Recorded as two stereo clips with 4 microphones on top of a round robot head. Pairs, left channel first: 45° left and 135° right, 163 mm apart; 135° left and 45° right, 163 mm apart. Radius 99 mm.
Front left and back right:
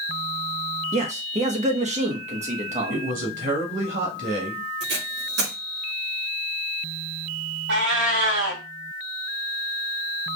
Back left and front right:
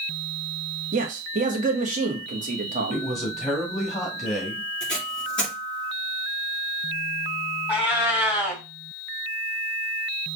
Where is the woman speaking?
135° right, 1.8 m.